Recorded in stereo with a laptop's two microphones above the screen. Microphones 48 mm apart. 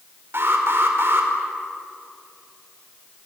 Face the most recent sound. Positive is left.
turn(degrees=-60)  # may be behind; listen again after turning